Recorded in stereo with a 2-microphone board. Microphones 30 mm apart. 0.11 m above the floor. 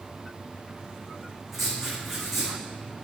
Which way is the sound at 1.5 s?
10° right (ahead or behind).